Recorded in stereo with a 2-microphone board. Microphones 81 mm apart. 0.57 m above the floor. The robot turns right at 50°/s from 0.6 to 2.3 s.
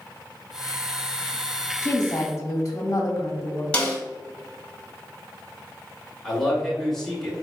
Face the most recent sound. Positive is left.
turn(degrees=5)  # may be behind; listen again after turning